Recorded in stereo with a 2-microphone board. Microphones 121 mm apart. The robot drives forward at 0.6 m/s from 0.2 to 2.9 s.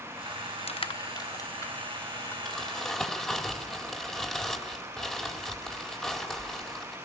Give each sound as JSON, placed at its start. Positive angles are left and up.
{"t": 0.7, "sound": "crushing", "side_deg": 55, "distance_m": 0.5}
{"t": 2.5, "sound": "crumpling", "side_deg": 5, "distance_m": 4.0}